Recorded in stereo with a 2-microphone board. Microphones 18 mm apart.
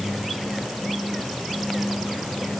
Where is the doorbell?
No doorbell in this recording.